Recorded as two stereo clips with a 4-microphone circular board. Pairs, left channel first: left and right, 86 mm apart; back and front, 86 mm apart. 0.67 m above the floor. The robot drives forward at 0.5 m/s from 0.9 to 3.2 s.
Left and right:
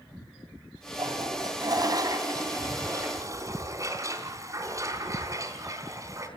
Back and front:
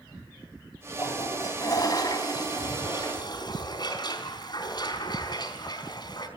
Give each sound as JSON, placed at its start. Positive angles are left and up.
{"t": 1.0, "sound": "a toilet flushing", "azimuth_deg": -130, "distance_m": 3.0}